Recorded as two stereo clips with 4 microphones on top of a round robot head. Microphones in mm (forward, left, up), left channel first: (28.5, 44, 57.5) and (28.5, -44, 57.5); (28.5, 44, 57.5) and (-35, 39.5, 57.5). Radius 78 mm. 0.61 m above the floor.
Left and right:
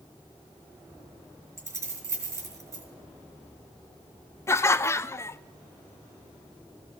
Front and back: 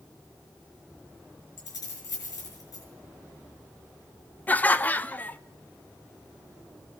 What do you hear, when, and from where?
1.6 s keys jangling: 30° right, 4.5 m
4.5 s laughter: 50° left, 0.7 m